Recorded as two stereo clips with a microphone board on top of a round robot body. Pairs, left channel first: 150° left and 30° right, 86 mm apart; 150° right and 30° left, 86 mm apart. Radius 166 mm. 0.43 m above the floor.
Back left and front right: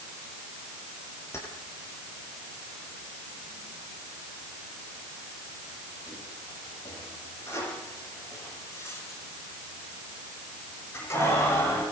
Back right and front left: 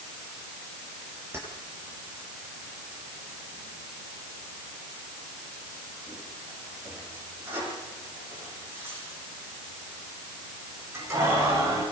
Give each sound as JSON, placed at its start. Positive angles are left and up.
{"t": 1.3, "sound": "keys jangling", "azimuth_deg": 90, "distance_m": 9.0}